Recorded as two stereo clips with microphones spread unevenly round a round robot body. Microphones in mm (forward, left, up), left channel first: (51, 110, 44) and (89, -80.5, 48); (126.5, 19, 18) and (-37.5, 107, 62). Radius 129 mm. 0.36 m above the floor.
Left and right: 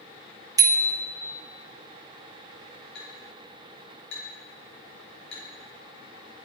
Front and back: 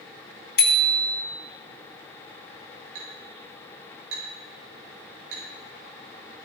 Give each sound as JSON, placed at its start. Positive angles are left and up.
{"t": 0.6, "sound": "a bicycle bell", "azimuth_deg": -5, "distance_m": 2.5}
{"t": 3.0, "sound": "a clink", "azimuth_deg": 145, "distance_m": 6.5}